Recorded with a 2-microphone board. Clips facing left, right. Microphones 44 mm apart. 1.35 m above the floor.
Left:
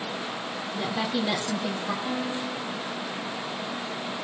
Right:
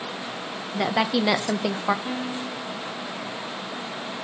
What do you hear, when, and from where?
0.7 s a woman speaking: 75° right (ahead or behind), 0.8 m
2.0 s a piano: 20° right (ahead or behind), 0.9 m